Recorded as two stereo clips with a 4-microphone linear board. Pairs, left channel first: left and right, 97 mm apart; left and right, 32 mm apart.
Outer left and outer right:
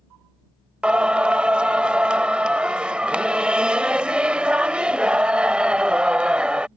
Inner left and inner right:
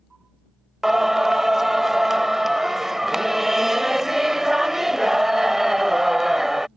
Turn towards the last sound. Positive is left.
turn(degrees=-10)  # may be behind; listen again after turning